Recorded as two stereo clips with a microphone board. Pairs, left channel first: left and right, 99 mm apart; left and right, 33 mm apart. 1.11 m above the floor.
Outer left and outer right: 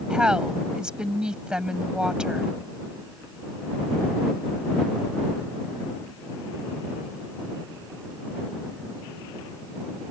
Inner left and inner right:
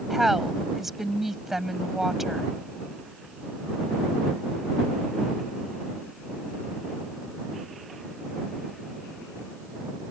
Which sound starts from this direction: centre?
A woman speaking, at 0.1 s.